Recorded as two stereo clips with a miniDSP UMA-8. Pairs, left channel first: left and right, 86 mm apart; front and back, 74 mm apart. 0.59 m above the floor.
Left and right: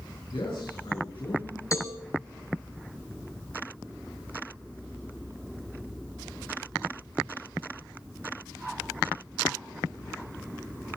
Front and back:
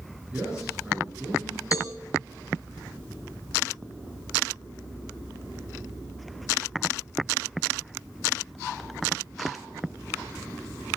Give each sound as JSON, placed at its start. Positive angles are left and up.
{"t": 0.3, "sound": "a man speaking", "azimuth_deg": 105, "distance_m": 7.5}
{"t": 1.7, "sound": "a cowbell", "azimuth_deg": 40, "distance_m": 4.0}